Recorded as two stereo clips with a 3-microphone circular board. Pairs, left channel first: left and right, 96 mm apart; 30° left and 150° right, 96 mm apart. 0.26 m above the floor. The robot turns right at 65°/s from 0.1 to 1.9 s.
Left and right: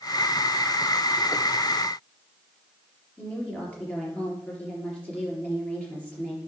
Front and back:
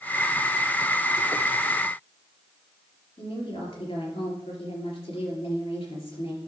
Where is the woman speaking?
10° left, 4 m.